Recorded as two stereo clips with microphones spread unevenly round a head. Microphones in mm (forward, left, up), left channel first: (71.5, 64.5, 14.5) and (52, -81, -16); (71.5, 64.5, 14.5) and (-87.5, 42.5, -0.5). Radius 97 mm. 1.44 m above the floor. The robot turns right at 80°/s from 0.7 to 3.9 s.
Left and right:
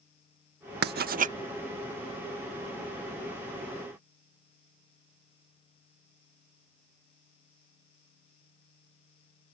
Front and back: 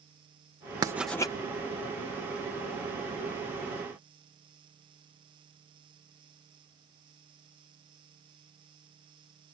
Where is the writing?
100° right; by 1.3 s 60° right.